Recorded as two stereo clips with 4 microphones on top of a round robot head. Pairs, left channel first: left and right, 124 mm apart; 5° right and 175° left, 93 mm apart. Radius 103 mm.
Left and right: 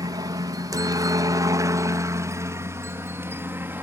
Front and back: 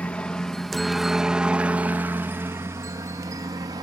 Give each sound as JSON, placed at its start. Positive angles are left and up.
{"t": 0.0, "sound": "a helicopter", "azimuth_deg": -70}